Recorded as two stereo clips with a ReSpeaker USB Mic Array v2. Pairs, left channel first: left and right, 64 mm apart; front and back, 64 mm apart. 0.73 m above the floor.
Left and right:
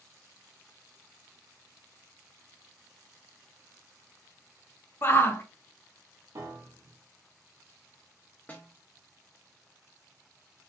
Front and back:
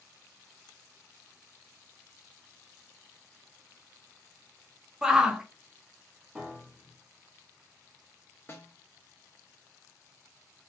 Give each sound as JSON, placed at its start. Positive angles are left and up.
{"t": 5.0, "sound": "a shout", "azimuth_deg": 110, "distance_m": 0.6}
{"t": 6.3, "sound": "a piano", "azimuth_deg": -80, "distance_m": 0.9}
{"t": 8.5, "sound": "a snare drum", "azimuth_deg": 35, "distance_m": 0.7}